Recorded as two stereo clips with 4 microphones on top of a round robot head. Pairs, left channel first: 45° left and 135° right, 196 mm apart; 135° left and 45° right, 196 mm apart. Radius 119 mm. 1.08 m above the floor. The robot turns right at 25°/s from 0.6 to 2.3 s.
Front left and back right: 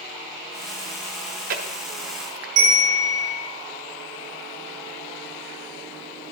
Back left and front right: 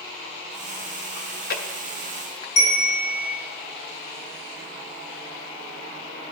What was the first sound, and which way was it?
Chewing, 170° left.